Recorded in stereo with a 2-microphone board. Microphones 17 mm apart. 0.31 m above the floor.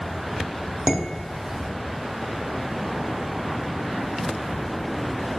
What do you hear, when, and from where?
0.9 s dishes clattering: 20° right (ahead or behind), 1.0 m